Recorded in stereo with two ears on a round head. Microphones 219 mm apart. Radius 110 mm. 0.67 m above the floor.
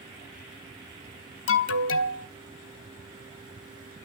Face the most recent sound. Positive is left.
turn(degrees=60)  # may be behind; listen again after turning